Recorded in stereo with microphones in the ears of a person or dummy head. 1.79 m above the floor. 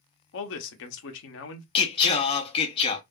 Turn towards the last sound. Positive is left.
turn(degrees=30)  # may be behind; listen again after turning